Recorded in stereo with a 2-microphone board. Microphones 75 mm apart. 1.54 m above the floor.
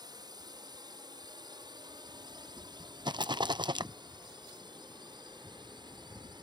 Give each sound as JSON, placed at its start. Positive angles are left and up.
{"t": 0.0, "sound": "a drone", "side_deg": -65}
{"t": 3.0, "sound": "a rattle", "side_deg": -85}